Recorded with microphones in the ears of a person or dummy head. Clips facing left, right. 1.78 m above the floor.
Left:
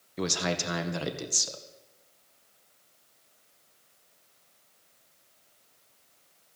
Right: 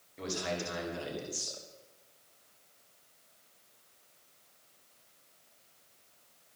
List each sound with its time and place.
0.2 s a man speaking: 65° left (ahead or behind), 1.9 m